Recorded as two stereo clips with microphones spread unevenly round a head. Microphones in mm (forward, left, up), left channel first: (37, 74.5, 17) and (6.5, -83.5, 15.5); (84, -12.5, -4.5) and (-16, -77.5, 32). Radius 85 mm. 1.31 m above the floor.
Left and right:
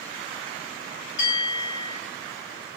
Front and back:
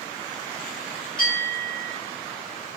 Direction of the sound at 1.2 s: 105° left.